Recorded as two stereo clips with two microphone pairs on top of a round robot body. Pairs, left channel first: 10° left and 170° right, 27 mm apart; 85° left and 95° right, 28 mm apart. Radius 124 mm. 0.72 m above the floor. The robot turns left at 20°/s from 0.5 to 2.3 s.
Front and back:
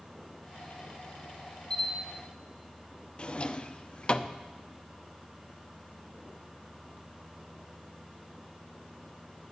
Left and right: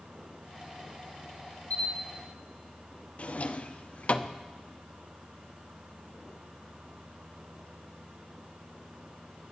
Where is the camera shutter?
70° left, 2 m; by 1.9 s 65° left, 2 m.